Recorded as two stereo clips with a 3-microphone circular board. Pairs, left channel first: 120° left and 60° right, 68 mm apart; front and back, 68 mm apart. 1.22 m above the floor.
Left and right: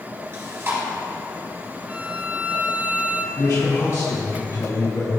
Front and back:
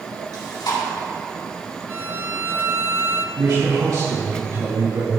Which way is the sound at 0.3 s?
5° right.